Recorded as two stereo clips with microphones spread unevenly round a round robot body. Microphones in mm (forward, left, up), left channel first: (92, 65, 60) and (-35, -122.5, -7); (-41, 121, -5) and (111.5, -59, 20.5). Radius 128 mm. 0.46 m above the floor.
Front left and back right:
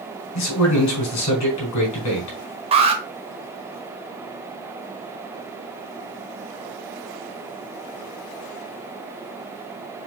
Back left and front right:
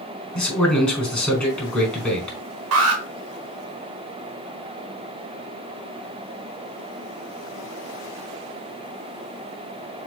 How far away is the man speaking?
About 4.5 m.